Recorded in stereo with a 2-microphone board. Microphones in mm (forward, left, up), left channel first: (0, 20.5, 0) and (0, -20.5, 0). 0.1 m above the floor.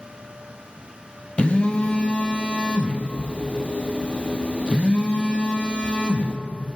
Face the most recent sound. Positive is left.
turn(degrees=30)  # may be behind; listen again after turning